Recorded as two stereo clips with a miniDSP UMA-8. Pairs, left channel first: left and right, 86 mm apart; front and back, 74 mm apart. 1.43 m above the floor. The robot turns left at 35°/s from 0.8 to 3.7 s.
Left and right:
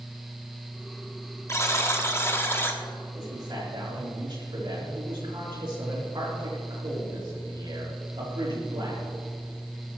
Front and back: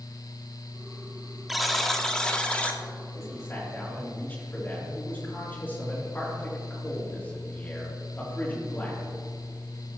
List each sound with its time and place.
1.5 s a buzzer: 95° left, 1.0 m; by 2.8 s 50° left, 1.0 m
3.1 s a man speaking: 45° right, 3.5 m; by 9.0 s 65° right, 3.5 m